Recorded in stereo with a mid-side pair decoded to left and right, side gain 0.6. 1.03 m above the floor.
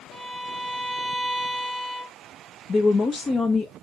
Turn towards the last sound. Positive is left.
turn(degrees=30)